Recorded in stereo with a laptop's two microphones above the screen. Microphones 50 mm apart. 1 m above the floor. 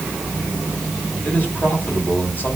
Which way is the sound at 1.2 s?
40° left (ahead or behind).